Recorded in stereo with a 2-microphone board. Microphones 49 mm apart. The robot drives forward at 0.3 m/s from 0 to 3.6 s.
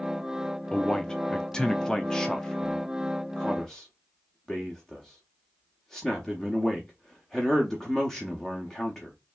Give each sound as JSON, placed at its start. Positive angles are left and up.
{"t": 0.7, "sound": "a man speaking", "side_deg": 15, "distance_m": 0.6}